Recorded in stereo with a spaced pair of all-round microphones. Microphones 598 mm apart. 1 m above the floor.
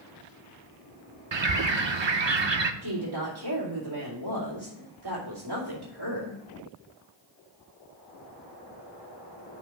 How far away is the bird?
About 0.6 m.